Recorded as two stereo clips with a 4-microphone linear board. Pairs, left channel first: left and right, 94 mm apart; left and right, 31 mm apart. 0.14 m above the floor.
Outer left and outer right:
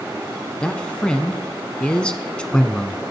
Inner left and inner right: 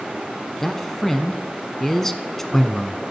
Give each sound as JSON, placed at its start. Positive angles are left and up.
{"t": 0.6, "sound": "a man speaking", "side_deg": 10, "distance_m": 1.1}